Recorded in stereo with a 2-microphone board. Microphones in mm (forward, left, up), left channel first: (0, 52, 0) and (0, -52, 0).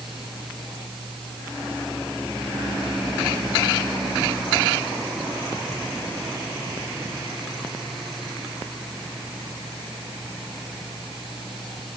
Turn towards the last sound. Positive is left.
No sound to turn to.